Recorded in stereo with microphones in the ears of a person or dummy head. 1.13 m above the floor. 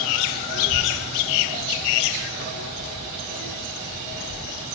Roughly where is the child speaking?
Left.